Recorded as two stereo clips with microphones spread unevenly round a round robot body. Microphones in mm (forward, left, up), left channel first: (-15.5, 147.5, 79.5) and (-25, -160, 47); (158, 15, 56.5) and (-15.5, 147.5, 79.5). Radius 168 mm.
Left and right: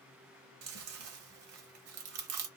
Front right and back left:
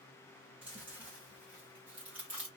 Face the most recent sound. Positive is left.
turn(degrees=-130)